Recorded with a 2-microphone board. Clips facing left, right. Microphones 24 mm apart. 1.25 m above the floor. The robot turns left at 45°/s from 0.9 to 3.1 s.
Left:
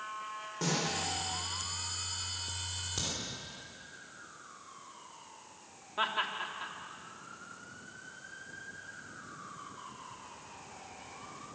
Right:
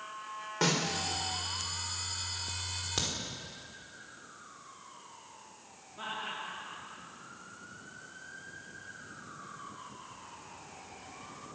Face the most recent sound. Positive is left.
turn(degrees=55)  # may be behind; listen again after turning